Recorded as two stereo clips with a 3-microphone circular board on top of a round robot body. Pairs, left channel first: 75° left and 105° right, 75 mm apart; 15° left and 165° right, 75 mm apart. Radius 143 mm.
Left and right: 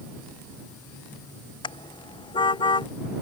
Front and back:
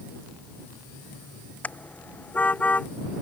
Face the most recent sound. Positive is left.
turn(degrees=85)